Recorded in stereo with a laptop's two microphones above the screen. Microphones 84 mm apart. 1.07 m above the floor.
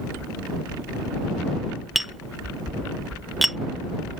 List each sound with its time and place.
1.9 s tapping: centre (ahead or behind)